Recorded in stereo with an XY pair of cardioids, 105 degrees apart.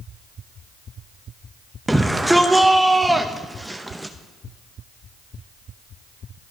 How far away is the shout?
About 0.7 m.